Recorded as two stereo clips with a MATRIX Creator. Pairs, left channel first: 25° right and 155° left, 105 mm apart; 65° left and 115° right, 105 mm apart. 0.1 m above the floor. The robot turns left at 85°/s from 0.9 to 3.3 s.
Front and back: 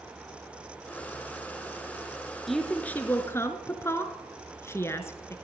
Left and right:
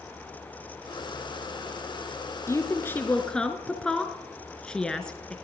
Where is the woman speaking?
65° left, 1.2 m; by 5.3 s 5° right, 1.2 m.